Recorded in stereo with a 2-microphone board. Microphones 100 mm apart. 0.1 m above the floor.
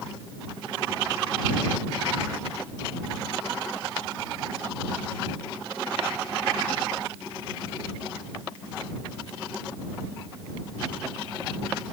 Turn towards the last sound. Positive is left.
No sound to turn to.